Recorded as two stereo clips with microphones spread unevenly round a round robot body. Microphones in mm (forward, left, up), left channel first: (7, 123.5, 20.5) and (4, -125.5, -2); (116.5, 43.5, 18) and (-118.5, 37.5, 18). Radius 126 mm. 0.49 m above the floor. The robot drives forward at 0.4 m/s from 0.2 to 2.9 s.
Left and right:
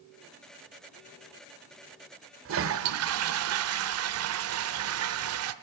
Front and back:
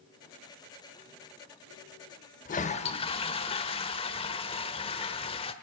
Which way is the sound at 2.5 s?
55° right.